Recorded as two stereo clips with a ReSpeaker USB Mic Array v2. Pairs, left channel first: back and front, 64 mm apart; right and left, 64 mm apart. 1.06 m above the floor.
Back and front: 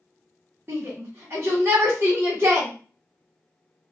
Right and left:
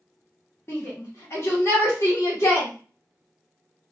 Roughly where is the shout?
Ahead right.